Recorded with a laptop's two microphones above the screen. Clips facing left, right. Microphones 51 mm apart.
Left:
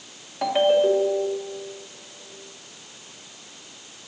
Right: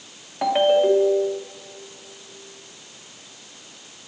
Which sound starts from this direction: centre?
A ringtone, at 0.4 s.